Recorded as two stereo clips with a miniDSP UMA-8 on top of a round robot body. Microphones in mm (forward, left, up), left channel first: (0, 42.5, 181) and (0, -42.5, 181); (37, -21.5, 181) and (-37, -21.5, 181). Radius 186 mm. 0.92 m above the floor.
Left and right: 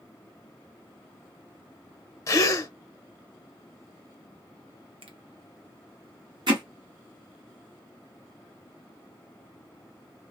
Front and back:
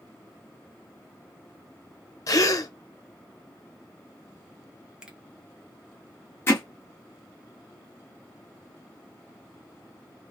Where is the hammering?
55° right, 0.5 m.